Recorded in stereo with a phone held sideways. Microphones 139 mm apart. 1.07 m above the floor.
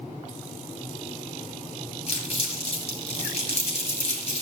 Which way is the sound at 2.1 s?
45° left (ahead or behind).